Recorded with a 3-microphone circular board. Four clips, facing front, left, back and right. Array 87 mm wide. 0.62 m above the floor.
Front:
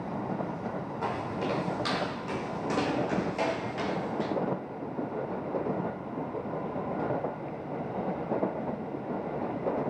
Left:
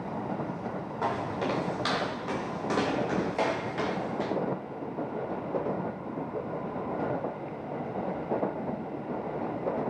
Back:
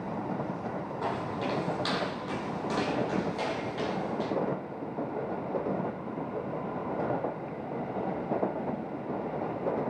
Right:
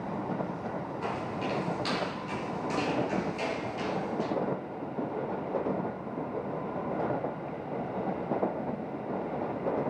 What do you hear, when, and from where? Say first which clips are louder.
1.0 s footsteps: left 6 dB, front 1 dB; 90° left, 8 m; by 4.3 s 75° left, 4 m